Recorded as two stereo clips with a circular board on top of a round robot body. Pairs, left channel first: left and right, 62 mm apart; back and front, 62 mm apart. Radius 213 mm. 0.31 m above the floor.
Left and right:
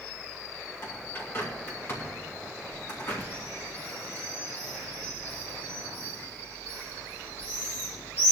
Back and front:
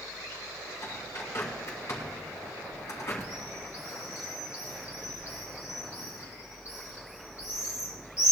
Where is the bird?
135° left, 3.5 m.